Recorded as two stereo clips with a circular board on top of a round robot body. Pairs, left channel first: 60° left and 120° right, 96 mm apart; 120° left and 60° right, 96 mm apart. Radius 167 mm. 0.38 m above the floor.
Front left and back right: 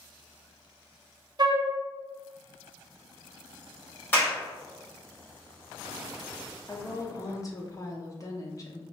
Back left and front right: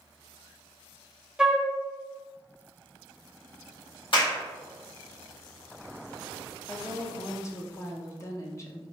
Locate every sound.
1.4 s a flute: 140° right, 0.8 m
4.1 s a clap: 125° left, 1.7 m
6.7 s a woman speaking: 85° left, 0.9 m